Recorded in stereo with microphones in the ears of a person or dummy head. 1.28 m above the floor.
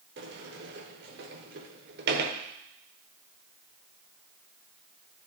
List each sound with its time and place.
0.2 s a sliding door: 50° right (ahead or behind), 0.9 m